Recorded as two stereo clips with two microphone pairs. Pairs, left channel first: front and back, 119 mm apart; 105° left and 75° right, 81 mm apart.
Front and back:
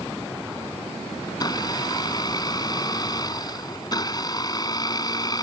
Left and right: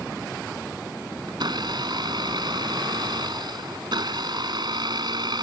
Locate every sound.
1.3 s a blender: 55° right